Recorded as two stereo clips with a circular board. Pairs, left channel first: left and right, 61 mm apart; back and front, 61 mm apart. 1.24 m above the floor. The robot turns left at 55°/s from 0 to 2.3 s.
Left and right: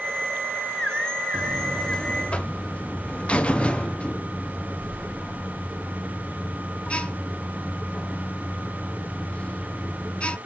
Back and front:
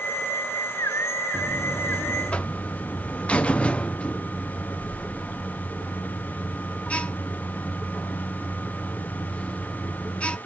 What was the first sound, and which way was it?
A buzzer, 170° right.